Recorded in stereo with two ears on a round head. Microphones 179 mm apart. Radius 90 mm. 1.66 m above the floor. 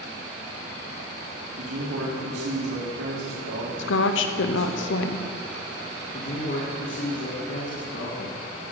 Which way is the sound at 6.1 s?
55° left (ahead or behind).